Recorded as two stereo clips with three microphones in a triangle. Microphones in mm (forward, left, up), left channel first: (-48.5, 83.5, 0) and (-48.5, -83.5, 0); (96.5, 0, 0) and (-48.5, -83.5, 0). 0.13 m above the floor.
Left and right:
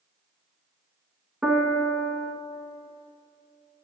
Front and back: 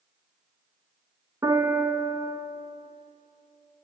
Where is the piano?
170° right, 0.5 m.